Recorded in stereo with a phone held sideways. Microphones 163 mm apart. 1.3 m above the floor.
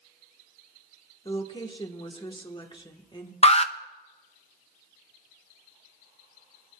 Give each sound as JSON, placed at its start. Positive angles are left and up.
{"t": 1.2, "sound": "a woman speaking", "side_deg": 30, "distance_m": 1.1}
{"t": 3.4, "sound": "an alarm", "side_deg": 40, "distance_m": 0.5}